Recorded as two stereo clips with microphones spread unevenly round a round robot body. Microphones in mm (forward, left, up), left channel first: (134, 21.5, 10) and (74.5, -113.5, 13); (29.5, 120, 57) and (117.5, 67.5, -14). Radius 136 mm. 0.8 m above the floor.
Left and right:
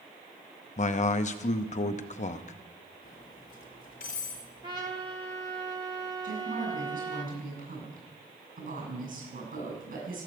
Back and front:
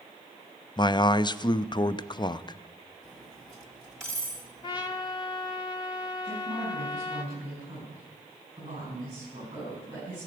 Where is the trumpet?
175° left, 0.5 m.